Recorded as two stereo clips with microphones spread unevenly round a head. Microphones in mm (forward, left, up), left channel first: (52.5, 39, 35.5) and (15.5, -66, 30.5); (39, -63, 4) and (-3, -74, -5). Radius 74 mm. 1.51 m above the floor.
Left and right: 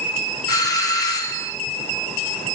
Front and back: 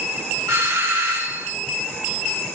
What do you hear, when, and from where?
0.5 s a doorbell: 135° left, 1.7 m